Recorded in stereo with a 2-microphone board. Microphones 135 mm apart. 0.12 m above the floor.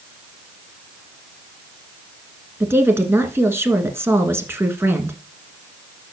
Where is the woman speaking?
15° right (ahead or behind), 1.4 m.